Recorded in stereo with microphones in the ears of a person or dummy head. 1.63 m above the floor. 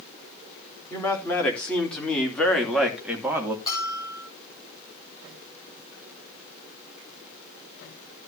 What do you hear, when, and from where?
0.9 s a man speaking: 10° left (ahead or behind), 3.5 m; by 3.6 s 15° right (ahead or behind), 2.5 m
3.7 s a bell: 20° left (ahead or behind), 8 m